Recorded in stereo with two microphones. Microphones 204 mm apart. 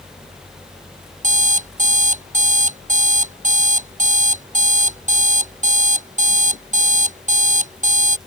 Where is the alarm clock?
40° right (ahead or behind).